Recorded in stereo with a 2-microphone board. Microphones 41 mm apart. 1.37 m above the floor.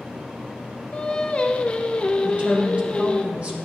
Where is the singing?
25° left (ahead or behind), 0.6 m.